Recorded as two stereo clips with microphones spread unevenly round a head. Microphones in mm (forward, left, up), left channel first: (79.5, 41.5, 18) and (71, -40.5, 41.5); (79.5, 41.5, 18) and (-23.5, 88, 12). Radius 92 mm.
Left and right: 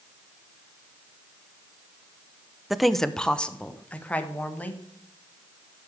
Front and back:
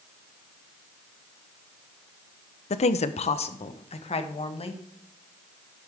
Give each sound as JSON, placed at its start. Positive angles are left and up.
{"t": 2.7, "sound": "a woman speaking", "azimuth_deg": -20, "distance_m": 0.6}